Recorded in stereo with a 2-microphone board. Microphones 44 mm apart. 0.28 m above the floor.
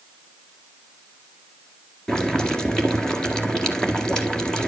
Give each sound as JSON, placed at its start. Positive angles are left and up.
{"t": 2.1, "sound": "boiling", "side_deg": 15, "distance_m": 1.8}